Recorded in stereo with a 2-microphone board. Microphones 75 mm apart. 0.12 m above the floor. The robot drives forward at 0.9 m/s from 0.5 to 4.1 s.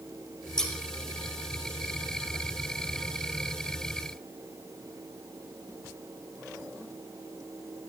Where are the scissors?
10° left (ahead or behind), 4 m.